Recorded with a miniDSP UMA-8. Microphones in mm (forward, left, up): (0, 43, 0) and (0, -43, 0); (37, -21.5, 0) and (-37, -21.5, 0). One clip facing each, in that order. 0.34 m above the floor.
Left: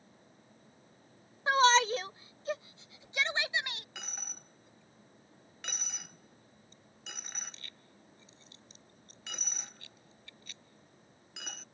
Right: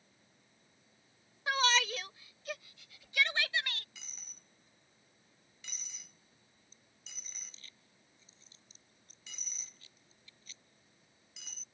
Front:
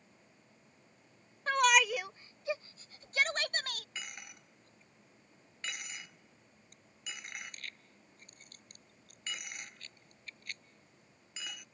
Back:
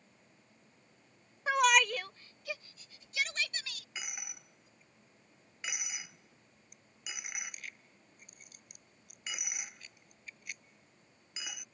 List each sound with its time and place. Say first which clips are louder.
1.5 s a shout: left 7 dB, even; 110° left; by 3.9 s 20° left
4.0 s a dropped coin: left 12 dB, back 1 dB; 100° left